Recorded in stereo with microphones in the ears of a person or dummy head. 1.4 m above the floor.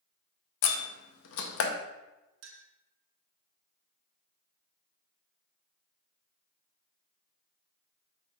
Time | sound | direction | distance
0.6 | a door slam | 70° left (ahead or behind) | 0.6 m
2.4 | a clink | 65° right (ahead or behind) | 0.9 m